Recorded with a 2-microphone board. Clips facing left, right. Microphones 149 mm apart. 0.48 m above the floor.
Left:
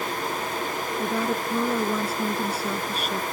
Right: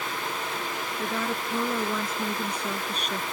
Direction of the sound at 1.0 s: 15° left (ahead or behind).